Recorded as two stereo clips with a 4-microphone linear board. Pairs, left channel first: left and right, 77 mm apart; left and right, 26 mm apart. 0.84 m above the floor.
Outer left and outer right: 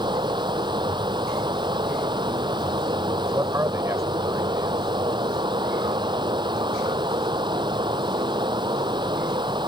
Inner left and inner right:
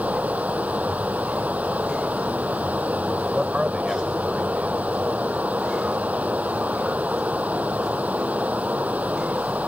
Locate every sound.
0.0 s running water: 80° right
3.3 s a man speaking: 40° right (ahead or behind)